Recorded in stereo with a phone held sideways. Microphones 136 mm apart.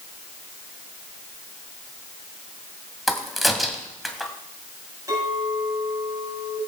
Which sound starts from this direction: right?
A clink, at 5.1 s.